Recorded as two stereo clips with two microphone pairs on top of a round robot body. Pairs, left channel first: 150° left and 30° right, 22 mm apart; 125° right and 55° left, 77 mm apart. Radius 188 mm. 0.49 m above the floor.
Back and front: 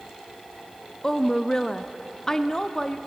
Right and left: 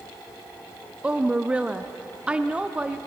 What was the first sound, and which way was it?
A woman speaking, 125° left.